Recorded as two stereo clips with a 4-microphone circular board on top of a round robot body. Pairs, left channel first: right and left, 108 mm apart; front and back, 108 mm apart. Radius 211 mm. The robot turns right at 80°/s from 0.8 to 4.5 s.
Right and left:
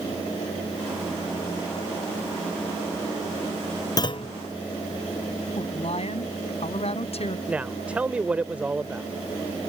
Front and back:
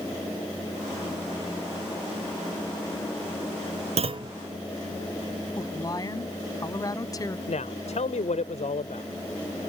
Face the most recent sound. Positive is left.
turn(degrees=10)